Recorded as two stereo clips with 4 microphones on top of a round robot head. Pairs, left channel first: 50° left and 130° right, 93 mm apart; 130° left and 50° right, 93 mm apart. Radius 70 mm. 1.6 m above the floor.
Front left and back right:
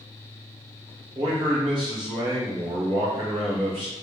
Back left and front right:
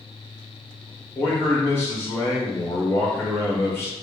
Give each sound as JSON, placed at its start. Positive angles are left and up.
{"t": 1.1, "sound": "a man speaking", "azimuth_deg": -165, "distance_m": 1.1}